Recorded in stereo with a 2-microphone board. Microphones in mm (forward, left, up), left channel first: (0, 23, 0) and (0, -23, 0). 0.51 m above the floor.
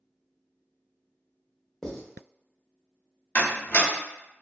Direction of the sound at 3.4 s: 45° left (ahead or behind).